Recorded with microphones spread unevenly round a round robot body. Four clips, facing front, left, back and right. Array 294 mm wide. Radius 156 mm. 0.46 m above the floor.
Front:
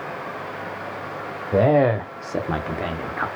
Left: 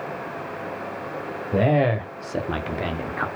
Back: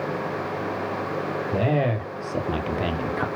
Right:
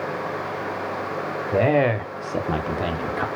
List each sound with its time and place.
1.5 s a man speaking: 25° right, 1.7 m; by 3.3 s 145° right, 1.1 m